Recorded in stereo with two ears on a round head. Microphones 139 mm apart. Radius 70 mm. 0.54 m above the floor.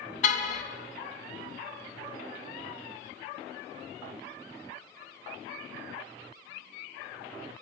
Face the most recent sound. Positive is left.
turn(degrees=55)  # may be behind; listen again after turning